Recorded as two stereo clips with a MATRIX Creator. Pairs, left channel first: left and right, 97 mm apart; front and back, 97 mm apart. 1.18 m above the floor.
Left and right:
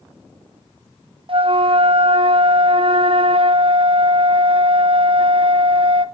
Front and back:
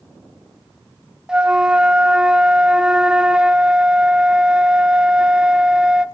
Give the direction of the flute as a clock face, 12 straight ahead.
3 o'clock.